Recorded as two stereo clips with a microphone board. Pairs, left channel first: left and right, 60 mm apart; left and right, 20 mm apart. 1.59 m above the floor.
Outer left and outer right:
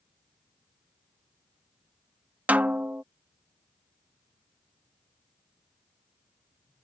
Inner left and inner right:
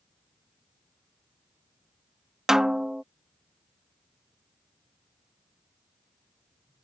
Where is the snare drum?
30° right (ahead or behind).